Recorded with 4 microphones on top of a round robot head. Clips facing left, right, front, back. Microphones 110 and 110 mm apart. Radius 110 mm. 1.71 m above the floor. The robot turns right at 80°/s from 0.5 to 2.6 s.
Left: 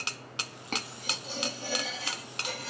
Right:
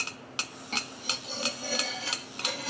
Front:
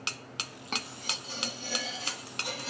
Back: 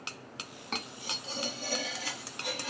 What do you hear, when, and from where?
0.7 s cutlery clinking: 90° left, 0.9 m; by 2.7 s 120° right, 0.9 m